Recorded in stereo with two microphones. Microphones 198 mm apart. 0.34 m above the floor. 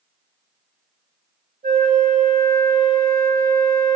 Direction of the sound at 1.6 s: 45° right (ahead or behind).